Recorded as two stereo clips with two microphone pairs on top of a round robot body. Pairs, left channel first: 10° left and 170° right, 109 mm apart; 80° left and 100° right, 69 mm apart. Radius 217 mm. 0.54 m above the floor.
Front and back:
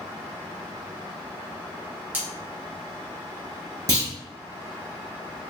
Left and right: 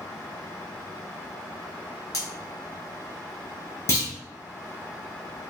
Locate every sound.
2.1 s cutlery clinking: 115° left, 1.3 m
3.9 s a clunk: 130° left, 1.4 m